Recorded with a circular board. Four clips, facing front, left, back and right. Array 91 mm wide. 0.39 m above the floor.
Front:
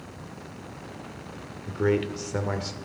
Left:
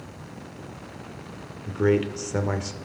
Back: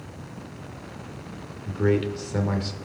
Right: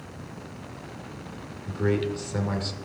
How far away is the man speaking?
About 1.2 m.